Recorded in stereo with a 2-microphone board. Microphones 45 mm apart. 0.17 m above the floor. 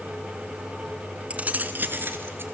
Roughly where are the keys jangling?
Right.